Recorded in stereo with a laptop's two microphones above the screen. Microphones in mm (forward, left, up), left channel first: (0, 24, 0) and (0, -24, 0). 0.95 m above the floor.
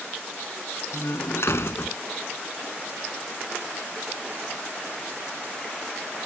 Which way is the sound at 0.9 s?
65° left (ahead or behind).